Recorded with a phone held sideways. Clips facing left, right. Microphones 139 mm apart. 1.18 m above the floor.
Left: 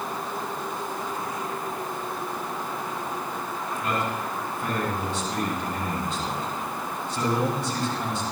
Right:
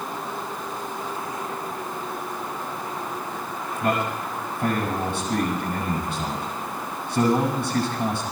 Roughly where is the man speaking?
Right.